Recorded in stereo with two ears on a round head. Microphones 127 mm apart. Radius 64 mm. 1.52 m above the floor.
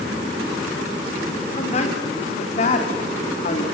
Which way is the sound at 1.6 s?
50° left (ahead or behind).